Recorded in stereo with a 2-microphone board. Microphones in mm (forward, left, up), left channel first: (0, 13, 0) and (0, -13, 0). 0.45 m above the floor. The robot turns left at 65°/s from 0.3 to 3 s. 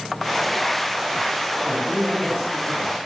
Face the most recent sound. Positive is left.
turn(degrees=95)